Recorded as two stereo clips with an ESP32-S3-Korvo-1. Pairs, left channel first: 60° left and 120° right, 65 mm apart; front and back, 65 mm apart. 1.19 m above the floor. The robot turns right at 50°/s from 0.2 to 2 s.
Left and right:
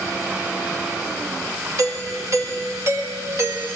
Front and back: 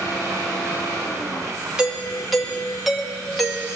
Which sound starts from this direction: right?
A doorbell, at 1.8 s.